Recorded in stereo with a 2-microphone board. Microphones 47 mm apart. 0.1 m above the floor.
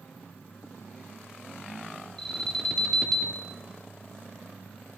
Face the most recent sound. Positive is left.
turn(degrees=15)  # may be behind; listen again after turning